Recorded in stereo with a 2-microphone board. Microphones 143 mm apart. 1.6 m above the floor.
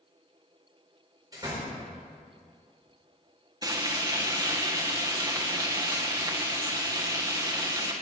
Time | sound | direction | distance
1.3 | a door slam | 25° right (ahead or behind) | 4.5 m
3.6 | frying | 25° right (ahead or behind) | 1.5 m